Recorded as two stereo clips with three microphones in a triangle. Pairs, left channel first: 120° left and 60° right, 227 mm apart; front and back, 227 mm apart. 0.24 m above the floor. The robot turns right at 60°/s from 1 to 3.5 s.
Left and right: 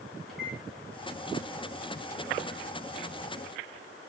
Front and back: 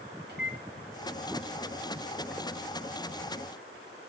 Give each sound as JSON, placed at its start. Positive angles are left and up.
{"t": 0.3, "sound": "a microwave", "azimuth_deg": 30, "distance_m": 2.0}